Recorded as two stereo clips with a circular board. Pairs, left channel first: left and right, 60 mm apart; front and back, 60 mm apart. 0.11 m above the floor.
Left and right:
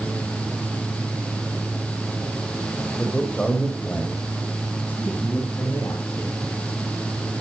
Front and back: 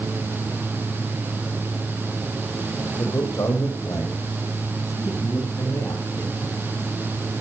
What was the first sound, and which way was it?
A man speaking, 20° left.